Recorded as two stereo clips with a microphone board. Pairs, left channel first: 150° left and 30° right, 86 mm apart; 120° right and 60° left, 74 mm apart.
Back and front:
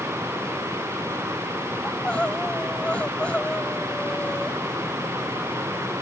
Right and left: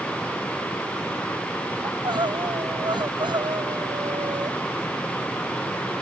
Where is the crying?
70° left.